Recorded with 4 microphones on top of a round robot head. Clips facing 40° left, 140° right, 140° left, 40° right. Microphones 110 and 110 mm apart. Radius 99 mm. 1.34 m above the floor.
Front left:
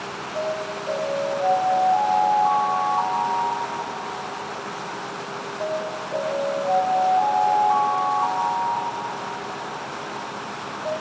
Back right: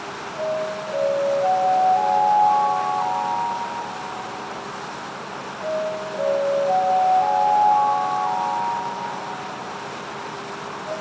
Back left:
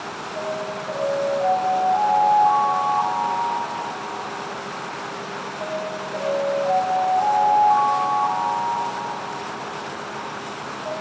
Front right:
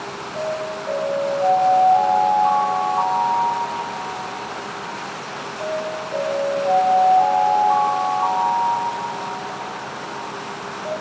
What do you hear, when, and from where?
0.3 s an alarm: 15° left, 4.5 m